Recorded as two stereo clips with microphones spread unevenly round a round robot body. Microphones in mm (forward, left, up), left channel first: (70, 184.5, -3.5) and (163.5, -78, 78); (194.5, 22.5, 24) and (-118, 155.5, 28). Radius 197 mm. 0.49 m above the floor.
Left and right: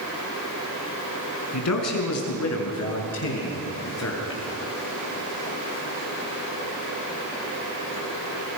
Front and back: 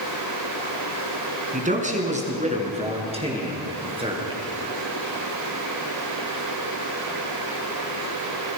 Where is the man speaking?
90° left, 5 m; by 4.4 s 80° left, 7 m.